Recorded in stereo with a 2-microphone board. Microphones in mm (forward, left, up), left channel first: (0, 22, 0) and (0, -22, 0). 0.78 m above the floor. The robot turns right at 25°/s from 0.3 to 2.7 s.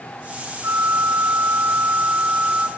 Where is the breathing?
No breathing in this recording.